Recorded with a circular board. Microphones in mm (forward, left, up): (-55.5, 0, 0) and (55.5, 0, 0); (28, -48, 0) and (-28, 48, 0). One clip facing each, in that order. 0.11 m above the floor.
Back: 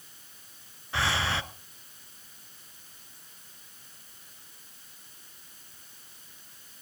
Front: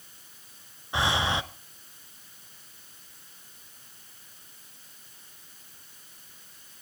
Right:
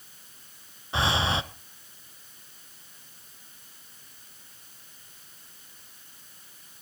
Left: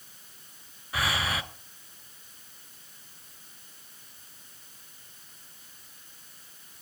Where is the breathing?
50° right, 0.6 m.